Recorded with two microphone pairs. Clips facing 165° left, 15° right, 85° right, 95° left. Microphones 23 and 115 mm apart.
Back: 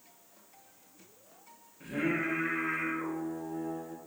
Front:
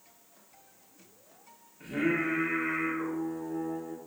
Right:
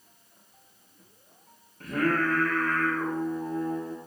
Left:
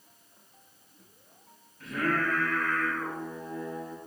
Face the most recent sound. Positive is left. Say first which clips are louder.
# front 3 dB, right 3 dB
turn(degrees=-100)